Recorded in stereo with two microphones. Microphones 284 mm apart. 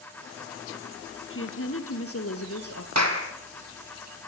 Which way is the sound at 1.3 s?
50° left (ahead or behind).